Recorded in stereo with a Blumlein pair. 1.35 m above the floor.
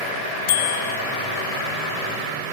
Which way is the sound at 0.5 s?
55° left.